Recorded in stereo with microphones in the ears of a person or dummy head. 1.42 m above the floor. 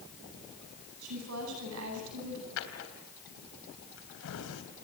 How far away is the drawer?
About 3.5 m.